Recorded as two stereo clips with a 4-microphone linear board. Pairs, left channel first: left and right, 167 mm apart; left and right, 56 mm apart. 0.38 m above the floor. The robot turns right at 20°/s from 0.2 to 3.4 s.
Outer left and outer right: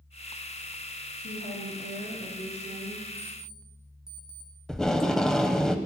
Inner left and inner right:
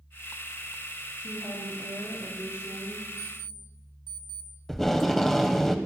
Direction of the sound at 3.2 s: 15° left (ahead or behind).